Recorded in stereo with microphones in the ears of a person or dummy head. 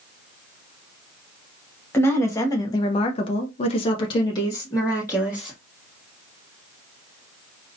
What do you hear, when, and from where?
1.9 s a woman speaking: 15° left (ahead or behind), 1.0 m